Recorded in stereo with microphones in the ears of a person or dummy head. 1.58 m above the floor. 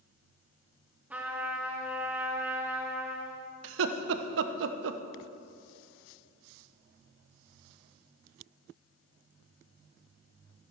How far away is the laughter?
About 0.9 m.